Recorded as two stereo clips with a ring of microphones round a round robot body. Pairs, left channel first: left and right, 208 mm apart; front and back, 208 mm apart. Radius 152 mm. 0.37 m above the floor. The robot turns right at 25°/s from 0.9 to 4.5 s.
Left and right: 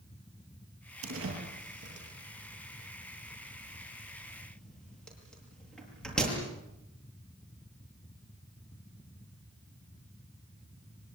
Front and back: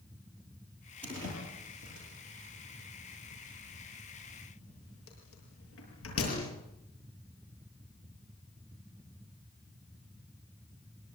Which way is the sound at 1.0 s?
85° right.